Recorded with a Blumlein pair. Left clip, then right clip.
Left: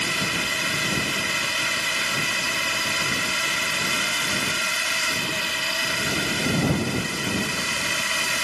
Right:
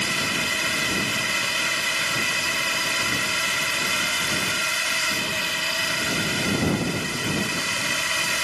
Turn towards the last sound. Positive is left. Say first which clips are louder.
# even
turn(degrees=-5)